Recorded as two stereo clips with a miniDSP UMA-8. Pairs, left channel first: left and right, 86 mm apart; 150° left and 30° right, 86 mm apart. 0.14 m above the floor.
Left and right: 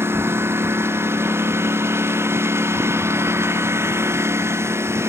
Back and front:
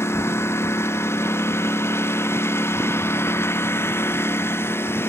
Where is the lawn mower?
150° right.